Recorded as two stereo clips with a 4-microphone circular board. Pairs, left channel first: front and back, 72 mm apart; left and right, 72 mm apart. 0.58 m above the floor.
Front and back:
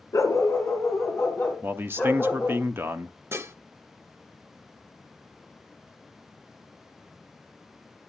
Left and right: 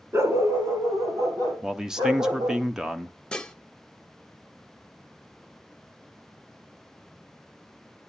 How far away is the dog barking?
About 2 m.